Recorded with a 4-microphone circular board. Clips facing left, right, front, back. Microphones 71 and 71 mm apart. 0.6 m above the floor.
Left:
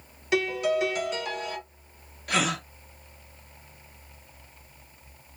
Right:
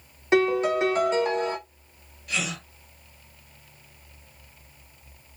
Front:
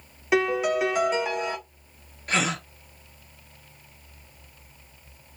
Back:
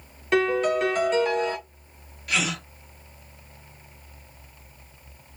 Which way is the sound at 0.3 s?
75° right.